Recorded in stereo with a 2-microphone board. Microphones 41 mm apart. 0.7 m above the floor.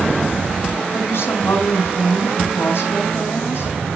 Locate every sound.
0.9 s a woman speaking: 65° left (ahead or behind), 5.5 m